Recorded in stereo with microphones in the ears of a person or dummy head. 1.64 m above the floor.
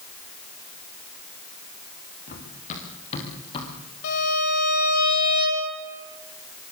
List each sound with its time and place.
2.3 s running footsteps: 50° left (ahead or behind), 8 m; by 3.7 s 30° left (ahead or behind), 7.5 m
4.0 s a violin: 75° left (ahead or behind), 7 m